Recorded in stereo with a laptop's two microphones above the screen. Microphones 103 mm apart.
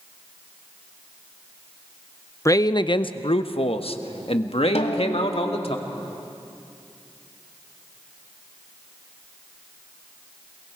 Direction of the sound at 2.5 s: 30° left (ahead or behind).